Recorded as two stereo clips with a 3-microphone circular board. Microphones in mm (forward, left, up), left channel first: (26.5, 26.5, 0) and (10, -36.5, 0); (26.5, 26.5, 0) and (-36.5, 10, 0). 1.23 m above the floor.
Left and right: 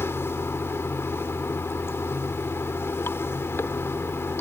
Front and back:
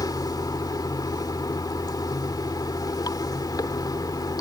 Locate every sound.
0.0 s running water: 25° left